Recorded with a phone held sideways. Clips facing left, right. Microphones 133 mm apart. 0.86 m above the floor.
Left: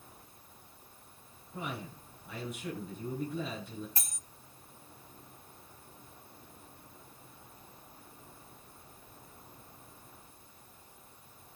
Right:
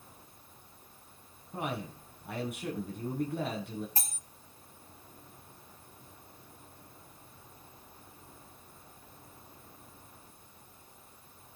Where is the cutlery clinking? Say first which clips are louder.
Right 5 dB; 30° right (ahead or behind), 1.0 m.